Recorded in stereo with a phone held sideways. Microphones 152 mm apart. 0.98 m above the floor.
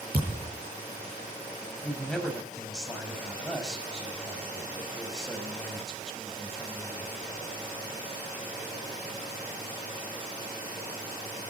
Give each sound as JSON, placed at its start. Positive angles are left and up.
{"t": 0.1, "sound": "a thud", "side_deg": -80, "distance_m": 8.0}
{"t": 1.8, "sound": "a man speaking", "side_deg": 5, "distance_m": 6.0}